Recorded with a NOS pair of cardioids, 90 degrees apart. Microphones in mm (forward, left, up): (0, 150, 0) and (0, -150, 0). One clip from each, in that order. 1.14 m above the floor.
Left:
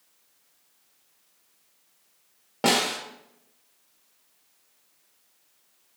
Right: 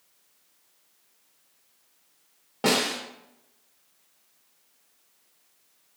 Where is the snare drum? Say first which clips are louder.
Left 1 dB; 15° left, 0.8 m.